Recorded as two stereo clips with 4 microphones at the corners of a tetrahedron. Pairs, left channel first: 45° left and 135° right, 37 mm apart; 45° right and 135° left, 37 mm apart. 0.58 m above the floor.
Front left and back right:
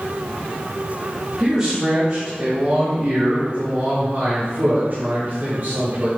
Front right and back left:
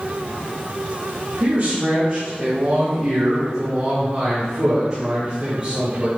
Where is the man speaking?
145° left, 1.7 m; by 6.1 s 165° right, 3.5 m.